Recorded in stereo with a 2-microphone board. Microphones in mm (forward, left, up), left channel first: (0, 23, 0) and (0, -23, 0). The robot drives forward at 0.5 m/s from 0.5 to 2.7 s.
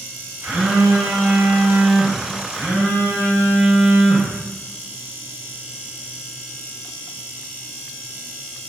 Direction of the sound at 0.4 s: 60° right (ahead or behind).